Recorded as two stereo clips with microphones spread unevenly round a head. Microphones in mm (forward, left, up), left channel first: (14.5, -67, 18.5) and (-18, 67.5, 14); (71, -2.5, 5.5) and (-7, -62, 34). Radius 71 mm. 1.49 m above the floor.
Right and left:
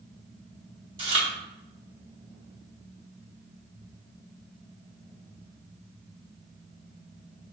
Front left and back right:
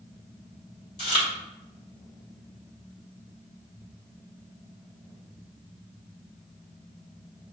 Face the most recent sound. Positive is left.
turn(degrees=80)